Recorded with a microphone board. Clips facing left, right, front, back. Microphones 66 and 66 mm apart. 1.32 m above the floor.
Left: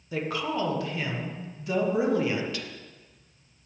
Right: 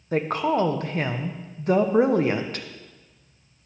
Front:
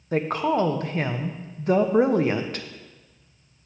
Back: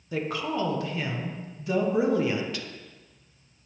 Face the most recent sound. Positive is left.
turn(degrees=-45)